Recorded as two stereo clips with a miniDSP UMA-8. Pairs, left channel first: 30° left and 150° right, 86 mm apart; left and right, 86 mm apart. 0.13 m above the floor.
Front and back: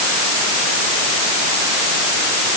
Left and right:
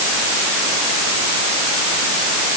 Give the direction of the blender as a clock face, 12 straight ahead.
I don't hear a blender.